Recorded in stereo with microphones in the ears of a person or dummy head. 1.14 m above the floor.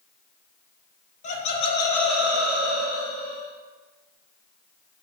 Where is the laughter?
35° left (ahead or behind), 0.8 m; by 3.5 s 50° right (ahead or behind), 1.1 m.